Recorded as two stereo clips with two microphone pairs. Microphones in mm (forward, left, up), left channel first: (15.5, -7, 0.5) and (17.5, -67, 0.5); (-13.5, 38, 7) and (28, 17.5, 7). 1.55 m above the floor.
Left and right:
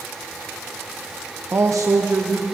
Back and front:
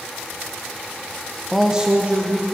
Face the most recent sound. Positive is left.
turn(degrees=-70)